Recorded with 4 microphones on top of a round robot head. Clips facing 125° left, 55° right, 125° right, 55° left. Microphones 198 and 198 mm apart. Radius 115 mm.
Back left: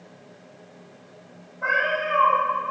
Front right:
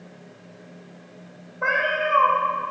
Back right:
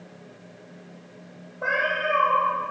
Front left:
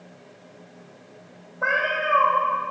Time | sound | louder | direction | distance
1.6 | a cat meowing | front right 2 dB, even | 15° right | 1.2 m